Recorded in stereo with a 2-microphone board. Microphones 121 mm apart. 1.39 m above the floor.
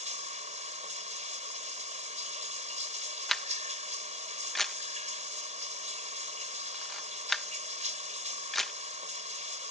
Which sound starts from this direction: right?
Running water, at 0.0 s.